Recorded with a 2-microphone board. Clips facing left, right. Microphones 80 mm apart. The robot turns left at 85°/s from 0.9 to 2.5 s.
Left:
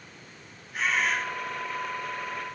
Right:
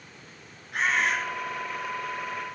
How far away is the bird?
About 9.5 m.